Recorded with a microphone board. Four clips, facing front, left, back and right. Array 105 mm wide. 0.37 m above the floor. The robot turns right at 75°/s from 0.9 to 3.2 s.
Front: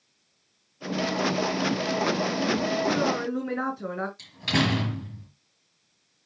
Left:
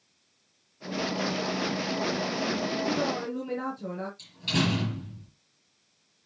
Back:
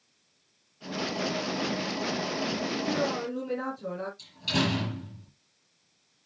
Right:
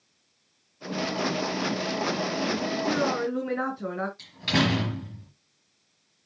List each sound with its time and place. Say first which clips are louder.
2.9 s a woman speaking: right 3 dB, front 4 dB; 70° right, 5 m; by 4.1 s 45° right, 5 m
4.2 s a door slam: right 3 dB, front 3 dB; 50° right, 4.5 m